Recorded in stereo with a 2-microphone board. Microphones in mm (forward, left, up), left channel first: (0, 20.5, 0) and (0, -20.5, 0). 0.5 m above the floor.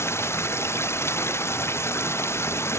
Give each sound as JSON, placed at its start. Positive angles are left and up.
{"t": 0.0, "sound": "running water", "side_deg": 75}